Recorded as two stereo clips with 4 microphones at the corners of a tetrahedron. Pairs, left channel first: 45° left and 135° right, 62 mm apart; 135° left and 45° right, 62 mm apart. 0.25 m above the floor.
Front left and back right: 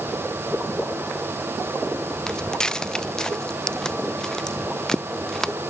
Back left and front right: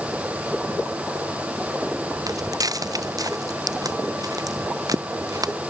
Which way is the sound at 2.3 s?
35° right.